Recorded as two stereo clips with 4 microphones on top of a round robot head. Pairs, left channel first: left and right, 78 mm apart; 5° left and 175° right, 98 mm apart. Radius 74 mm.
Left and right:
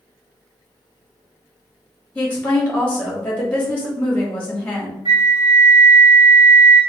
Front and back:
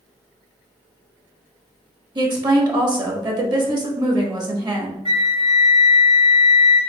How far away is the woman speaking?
About 1.4 m.